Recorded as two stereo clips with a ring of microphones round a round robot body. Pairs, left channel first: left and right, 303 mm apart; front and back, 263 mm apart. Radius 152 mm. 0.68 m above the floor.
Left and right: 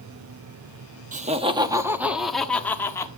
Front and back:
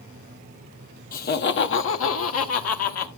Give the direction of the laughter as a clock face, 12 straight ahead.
1 o'clock.